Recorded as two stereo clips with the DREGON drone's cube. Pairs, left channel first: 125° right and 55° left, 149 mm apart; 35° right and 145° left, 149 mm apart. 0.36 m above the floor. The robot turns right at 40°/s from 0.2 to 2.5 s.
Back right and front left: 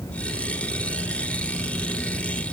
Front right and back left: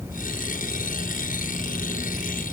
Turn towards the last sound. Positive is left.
No sound to turn to.